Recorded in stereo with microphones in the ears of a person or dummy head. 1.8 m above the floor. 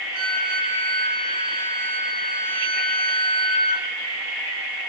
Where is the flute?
70° right (ahead or behind), 3 m.